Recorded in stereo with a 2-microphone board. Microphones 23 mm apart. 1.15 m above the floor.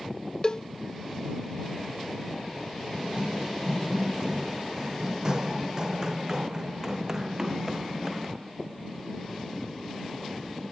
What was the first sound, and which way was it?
A cowbell, 35° left (ahead or behind).